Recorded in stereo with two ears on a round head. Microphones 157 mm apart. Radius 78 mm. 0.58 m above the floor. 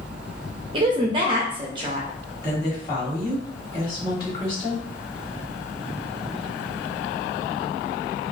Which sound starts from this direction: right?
A woman speaking, at 0.7 s.